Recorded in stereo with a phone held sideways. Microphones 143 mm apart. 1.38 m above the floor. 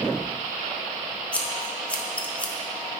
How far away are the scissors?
About 0.6 m.